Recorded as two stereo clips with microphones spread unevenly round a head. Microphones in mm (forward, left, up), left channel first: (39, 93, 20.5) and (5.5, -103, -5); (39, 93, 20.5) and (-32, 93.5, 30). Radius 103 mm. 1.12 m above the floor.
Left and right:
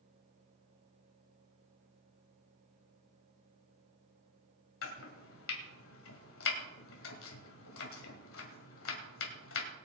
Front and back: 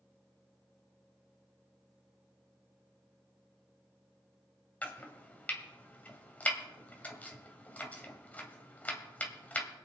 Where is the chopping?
70° left, 2 m.